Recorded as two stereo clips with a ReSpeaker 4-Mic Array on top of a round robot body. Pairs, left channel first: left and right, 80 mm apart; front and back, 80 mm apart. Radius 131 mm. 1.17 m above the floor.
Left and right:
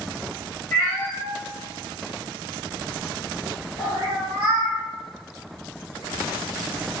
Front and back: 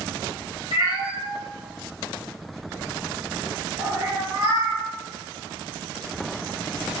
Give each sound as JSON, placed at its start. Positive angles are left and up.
{"t": 0.7, "sound": "a cat meowing", "azimuth_deg": 20, "distance_m": 1.2}